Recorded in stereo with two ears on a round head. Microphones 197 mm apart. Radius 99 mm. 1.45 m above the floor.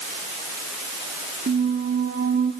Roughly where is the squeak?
Right.